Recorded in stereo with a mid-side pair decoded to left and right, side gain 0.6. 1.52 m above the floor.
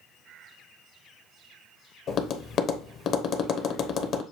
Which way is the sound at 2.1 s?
50° left.